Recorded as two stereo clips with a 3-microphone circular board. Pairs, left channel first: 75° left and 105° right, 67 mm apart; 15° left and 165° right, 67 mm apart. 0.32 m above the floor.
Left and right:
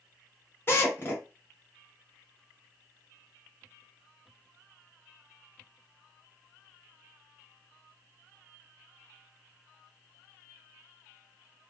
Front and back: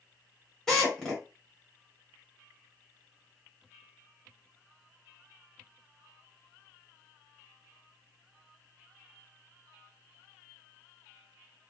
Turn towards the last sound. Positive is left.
turn(degrees=90)